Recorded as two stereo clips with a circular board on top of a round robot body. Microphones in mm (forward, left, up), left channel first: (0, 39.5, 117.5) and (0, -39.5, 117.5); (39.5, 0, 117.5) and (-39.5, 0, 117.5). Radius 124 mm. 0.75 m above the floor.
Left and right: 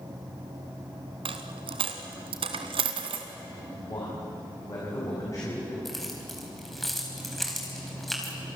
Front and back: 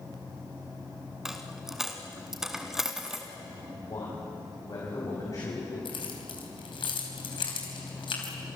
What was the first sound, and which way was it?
A dropped coin, 95° right.